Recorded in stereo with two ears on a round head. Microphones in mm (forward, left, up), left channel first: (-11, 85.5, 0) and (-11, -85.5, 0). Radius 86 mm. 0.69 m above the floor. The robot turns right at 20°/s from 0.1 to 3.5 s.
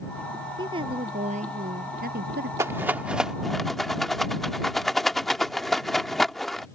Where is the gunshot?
I don't hear a gunshot.